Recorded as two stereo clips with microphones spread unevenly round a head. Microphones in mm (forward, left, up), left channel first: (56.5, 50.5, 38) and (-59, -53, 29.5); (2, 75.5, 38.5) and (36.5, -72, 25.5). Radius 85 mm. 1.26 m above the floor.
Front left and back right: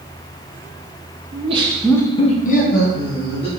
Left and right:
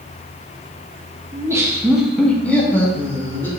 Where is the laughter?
140° right, 0.8 m; by 3.5 s 25° left, 1.9 m.